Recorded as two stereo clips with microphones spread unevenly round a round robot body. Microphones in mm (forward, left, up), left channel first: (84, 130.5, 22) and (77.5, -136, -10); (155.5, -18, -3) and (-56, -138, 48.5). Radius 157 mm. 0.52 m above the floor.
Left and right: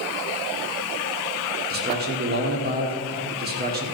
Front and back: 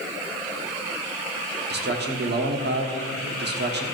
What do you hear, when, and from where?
1.7 s a man speaking: 110° right, 1.5 m